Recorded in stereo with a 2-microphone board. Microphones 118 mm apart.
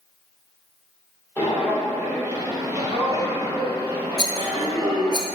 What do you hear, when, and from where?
1.4 s footsteps: 15° right (ahead or behind), 2 m; by 5.2 s 30° right (ahead or behind), 2.5 m
4.2 s a rattle: 35° left (ahead or behind), 0.7 m